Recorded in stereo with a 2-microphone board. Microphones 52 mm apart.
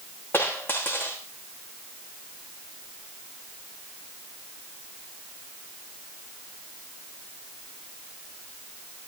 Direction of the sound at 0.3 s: 35° left (ahead or behind).